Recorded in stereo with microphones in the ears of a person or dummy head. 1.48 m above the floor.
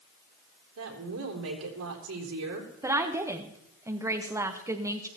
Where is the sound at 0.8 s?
85° right, 4 m.